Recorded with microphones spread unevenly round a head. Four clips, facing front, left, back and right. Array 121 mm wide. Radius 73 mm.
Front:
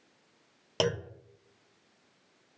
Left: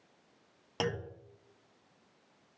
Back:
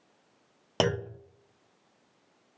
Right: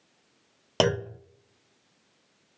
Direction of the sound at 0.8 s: 90° right.